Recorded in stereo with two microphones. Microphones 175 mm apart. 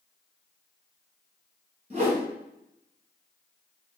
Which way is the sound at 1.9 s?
40° right (ahead or behind).